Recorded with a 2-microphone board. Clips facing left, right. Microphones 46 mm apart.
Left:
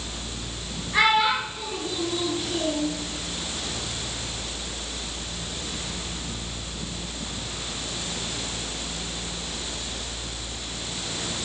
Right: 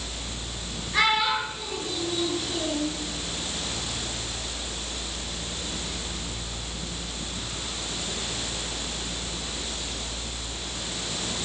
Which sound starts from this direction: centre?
A child speaking, at 0.9 s.